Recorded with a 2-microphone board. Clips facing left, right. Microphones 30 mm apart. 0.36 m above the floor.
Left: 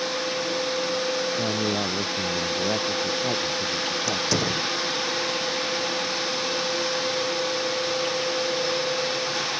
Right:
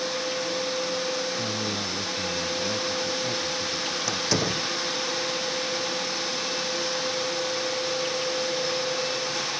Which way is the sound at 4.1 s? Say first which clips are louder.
Even; 5° right (ahead or behind).